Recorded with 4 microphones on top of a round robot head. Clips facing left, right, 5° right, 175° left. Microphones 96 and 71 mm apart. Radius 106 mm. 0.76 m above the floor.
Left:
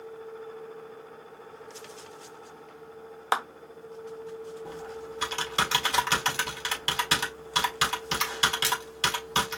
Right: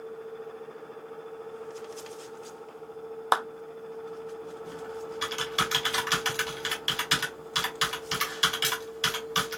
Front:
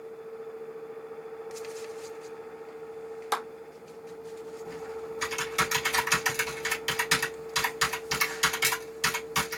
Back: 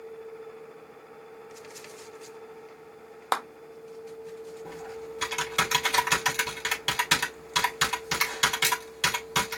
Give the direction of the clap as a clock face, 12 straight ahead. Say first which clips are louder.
Right 2 dB, back 3 dB; 5 o'clock.